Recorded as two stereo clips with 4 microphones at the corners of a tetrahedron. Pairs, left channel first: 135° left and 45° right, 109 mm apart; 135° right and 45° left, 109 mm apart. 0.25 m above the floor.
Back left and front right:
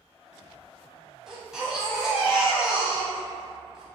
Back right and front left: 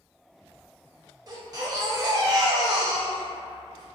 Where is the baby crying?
35° left, 0.6 m.